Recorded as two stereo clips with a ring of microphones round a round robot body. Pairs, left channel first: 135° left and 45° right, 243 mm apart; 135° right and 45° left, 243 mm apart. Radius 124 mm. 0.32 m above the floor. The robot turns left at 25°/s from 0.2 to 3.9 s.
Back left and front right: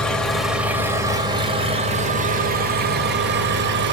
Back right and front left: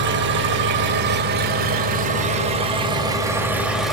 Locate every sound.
0.0 s an engine running: 50° left, 1.4 m; by 3.9 s 45° right, 1.4 m